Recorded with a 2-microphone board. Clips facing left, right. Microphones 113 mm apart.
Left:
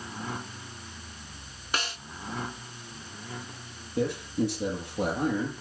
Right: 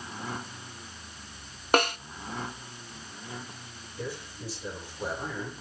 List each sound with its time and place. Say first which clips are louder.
1.7 s a snare drum: right 10 dB; 55° right (ahead or behind), 0.6 m
4.0 s a man speaking: left 11 dB; 65° left (ahead or behind), 8.5 m